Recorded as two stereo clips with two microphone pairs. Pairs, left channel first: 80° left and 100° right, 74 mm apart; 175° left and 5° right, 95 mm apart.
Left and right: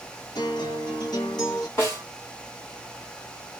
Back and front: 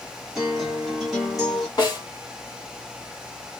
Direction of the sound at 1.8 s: 130° left.